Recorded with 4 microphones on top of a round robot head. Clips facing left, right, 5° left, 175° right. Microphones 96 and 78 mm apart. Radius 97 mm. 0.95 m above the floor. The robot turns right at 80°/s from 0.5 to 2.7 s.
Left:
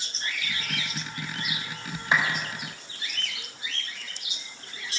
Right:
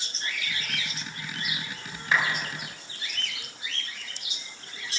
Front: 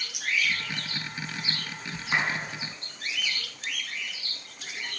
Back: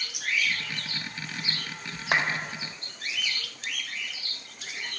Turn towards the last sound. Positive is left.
turn(degrees=-150)